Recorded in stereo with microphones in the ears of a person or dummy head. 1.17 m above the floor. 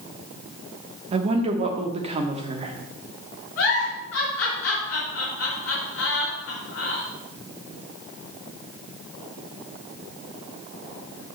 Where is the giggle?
65° left (ahead or behind), 4.5 m.